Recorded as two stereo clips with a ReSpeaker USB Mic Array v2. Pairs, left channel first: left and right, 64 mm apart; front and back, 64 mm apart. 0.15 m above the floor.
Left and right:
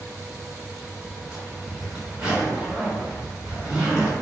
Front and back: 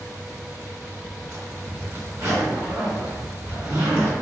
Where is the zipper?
165° right, 1.9 m.